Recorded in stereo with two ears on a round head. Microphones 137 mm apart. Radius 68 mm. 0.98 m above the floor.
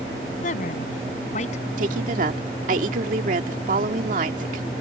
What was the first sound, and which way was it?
A woman speaking, 55° left (ahead or behind).